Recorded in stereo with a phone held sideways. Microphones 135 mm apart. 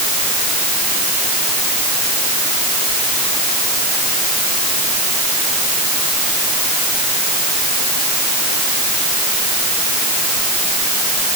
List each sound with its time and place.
Only background noise.